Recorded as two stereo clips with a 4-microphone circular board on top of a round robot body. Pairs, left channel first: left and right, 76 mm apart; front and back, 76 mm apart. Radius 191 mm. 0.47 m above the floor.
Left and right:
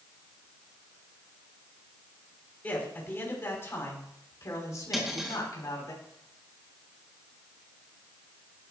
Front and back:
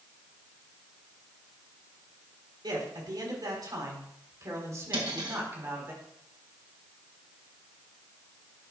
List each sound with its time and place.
2.6 s a man speaking: 155° left, 4 m; by 5.9 s 120° left, 4.5 m
4.9 s cutlery clinking: 175° right, 2.5 m